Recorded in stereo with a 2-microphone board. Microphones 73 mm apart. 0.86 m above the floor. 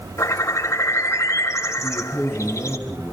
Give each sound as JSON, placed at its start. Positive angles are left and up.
{"t": 0.2, "sound": "a bird", "side_deg": 45, "distance_m": 4.0}
{"t": 1.8, "sound": "a man speaking", "side_deg": -15, "distance_m": 7.0}